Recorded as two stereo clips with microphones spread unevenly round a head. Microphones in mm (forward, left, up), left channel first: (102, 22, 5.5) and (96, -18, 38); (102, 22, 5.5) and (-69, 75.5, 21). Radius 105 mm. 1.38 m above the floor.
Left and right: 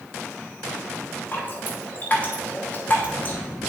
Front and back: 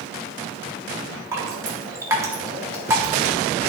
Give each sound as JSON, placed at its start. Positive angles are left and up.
{"t": 1.3, "sound": "dripping", "azimuth_deg": -150, "distance_m": 0.9}